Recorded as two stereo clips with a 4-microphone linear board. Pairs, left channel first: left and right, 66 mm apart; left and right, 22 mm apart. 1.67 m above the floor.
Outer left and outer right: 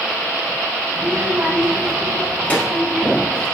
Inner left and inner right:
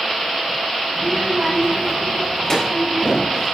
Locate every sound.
1.0 s a child speaking: 45° right (ahead or behind), 1.1 m; by 3.5 s 35° left (ahead or behind), 3 m